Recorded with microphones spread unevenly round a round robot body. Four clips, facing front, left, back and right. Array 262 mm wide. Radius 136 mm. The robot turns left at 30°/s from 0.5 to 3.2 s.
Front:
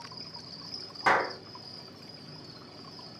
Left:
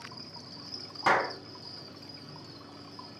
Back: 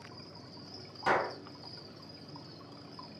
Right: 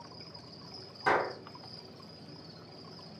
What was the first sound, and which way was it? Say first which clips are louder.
An insect: left 3 dB, front 3 dB; 60° left.